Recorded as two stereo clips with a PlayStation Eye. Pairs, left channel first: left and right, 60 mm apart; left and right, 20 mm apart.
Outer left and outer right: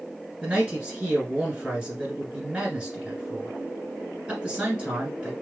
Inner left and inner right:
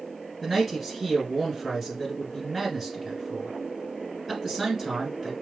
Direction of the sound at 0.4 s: 15° right (ahead or behind).